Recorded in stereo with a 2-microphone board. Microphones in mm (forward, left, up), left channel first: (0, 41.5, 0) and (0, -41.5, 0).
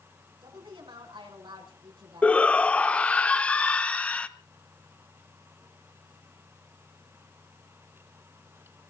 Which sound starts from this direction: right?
A woman speaking, at 0.4 s.